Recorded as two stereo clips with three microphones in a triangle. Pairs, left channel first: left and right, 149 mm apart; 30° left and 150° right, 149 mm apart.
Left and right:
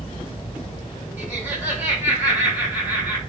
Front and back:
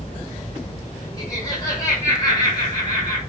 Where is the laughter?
20° right, 1.5 m.